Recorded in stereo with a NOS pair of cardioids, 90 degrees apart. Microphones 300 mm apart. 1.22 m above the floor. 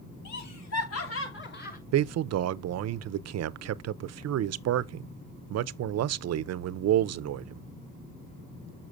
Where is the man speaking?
55° right, 0.6 m.